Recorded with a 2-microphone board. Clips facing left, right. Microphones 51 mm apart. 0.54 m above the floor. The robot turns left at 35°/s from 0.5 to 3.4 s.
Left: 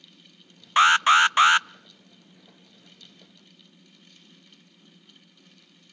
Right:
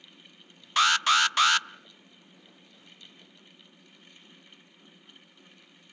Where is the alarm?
30° left (ahead or behind), 0.6 m; by 1.7 s 25° left (ahead or behind), 0.6 m.